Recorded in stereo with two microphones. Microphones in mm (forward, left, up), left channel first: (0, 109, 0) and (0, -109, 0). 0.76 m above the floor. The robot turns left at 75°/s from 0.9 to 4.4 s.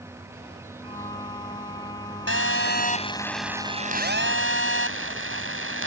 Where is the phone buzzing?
85° left; by 5.9 s 75° right.